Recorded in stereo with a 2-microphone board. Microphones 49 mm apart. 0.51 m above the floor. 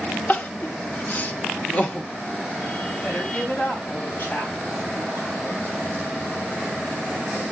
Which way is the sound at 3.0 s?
30° left (ahead or behind).